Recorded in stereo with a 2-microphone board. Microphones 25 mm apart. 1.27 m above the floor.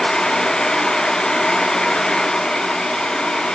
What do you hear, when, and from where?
Only background noise.